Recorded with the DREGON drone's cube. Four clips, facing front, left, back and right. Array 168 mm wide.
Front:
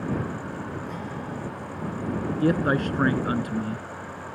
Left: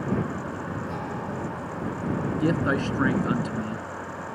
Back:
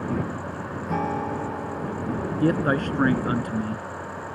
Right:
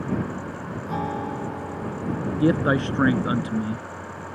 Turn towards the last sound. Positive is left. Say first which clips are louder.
# right 5 dB, back 1 dB
turn(degrees=-95)